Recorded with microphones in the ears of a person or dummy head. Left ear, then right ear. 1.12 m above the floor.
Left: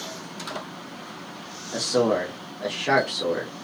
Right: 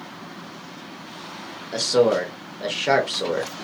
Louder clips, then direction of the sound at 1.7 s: Right 4 dB; 15° right (ahead or behind).